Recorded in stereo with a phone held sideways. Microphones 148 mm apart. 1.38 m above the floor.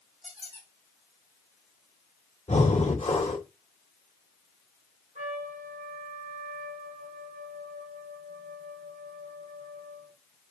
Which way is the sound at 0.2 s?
40° right (ahead or behind).